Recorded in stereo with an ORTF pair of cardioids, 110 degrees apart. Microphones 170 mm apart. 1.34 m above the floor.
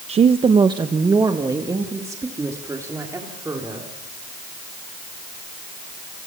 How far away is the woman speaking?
About 0.7 m.